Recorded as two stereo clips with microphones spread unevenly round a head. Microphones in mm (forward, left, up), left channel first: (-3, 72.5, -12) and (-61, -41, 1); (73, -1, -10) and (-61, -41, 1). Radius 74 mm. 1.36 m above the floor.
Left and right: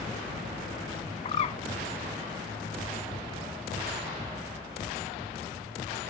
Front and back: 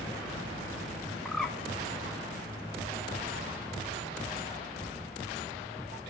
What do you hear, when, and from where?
1.2 s a bird: 105° left, 1.2 m